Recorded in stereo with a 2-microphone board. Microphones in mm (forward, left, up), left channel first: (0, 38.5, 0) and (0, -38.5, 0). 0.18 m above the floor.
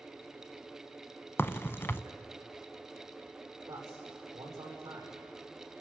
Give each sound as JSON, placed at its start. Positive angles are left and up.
{"t": 1.4, "sound": "a crack", "side_deg": 30, "distance_m": 0.6}
{"t": 3.7, "sound": "a man speaking", "side_deg": -50, "distance_m": 8.5}